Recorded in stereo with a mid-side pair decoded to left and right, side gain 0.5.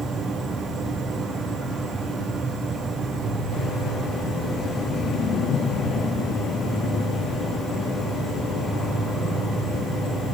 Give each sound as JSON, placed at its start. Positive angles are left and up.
{"t": 0.0, "sound": "an insect", "azimuth_deg": 0, "distance_m": 6.0}